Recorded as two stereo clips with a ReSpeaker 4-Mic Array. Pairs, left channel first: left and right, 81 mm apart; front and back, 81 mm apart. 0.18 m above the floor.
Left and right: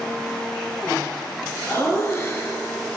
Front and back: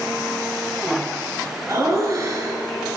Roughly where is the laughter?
Behind left.